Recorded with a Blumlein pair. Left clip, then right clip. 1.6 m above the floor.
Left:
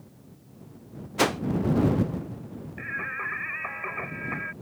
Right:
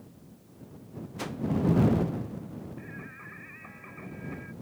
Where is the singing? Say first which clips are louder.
Left 13 dB; 55° left.